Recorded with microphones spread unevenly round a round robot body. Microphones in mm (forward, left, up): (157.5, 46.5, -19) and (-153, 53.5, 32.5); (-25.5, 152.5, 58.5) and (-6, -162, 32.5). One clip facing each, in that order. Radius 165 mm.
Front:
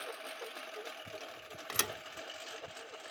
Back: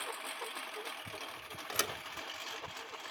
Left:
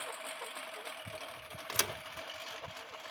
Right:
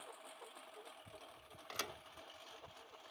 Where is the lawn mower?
100° left; by 3.1 s 105° left.